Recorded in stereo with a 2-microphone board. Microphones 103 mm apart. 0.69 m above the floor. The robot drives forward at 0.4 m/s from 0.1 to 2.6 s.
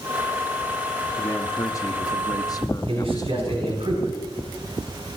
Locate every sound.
1.2 s a man speaking: 30° left (ahead or behind), 1.2 m; by 3.9 s 35° left (ahead or behind), 1.0 m
2.9 s a man speaking: 60° right (ahead or behind), 5.5 m